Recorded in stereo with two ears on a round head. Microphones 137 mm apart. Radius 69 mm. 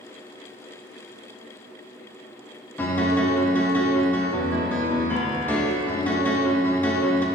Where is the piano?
15° left (ahead or behind), 1.2 m.